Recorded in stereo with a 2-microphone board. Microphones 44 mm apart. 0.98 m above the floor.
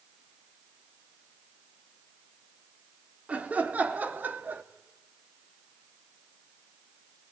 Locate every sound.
3.3 s laughter: 35° right (ahead or behind), 2.5 m; by 4.6 s 50° right (ahead or behind), 1.6 m